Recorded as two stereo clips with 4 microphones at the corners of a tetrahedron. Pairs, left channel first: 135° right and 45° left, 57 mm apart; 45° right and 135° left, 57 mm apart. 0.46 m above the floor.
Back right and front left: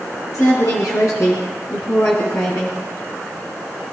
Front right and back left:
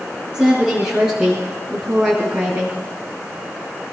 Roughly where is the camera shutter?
No camera shutter in this recording.